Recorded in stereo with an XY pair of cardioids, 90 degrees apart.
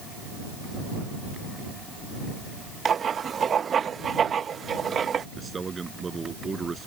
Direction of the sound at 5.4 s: 35° right.